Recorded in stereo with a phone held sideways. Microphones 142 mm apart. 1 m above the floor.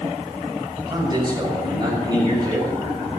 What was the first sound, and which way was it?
A man speaking, 30° right (ahead or behind).